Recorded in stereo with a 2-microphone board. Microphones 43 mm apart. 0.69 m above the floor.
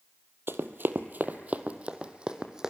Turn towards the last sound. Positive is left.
turn(degrees=-15)  # may be behind; listen again after turning